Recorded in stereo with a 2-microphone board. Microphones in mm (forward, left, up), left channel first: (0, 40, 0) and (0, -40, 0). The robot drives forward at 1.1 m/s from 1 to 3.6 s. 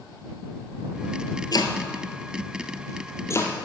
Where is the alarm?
I don't hear an alarm.